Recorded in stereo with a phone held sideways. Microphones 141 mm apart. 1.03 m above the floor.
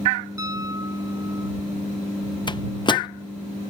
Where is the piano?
25° right (ahead or behind).